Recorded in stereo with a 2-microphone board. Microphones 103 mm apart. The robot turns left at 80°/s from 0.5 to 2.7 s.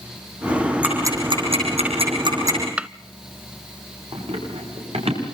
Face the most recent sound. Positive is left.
turn(degrees=-70)  # may be behind; listen again after turning